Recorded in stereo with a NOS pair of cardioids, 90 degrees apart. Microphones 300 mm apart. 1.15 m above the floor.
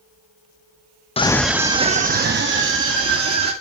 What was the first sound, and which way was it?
A scream, 20° left.